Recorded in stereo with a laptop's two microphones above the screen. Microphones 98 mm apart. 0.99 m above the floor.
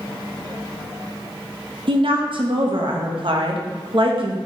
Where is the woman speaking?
60° right (ahead or behind), 0.8 m.